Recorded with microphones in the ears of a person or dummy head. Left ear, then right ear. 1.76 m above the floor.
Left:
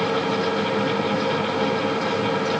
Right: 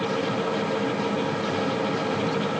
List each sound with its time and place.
Only background noise.